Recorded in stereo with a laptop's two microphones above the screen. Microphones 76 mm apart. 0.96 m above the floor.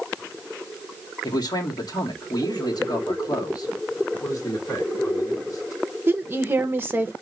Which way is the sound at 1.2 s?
65° left (ahead or behind).